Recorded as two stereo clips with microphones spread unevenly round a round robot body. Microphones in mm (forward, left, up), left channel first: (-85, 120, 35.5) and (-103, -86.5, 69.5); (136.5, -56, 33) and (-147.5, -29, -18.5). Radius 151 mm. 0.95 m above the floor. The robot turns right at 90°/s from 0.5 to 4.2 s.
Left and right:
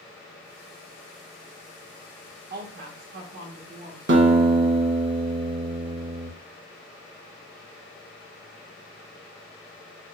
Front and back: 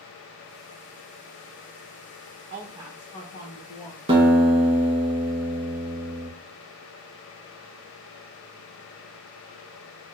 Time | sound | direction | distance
2.5 | a woman speaking | 140° right | 0.7 m
4.1 | a guitar | 130° right | 1.2 m